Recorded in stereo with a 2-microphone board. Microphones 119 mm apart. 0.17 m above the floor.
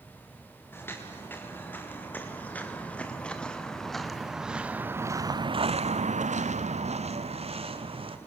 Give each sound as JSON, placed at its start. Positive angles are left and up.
{"t": 0.7, "sound": "footsteps", "side_deg": 20, "distance_m": 5.0}